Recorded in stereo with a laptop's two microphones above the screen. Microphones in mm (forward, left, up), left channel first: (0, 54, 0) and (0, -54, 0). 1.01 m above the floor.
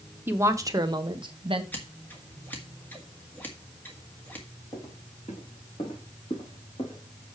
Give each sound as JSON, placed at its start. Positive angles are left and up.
{"t": 0.3, "sound": "a woman speaking", "side_deg": -20, "distance_m": 0.9}
{"t": 1.7, "sound": "scissors", "side_deg": 20, "distance_m": 1.7}
{"t": 4.7, "sound": "footsteps", "side_deg": 70, "distance_m": 4.0}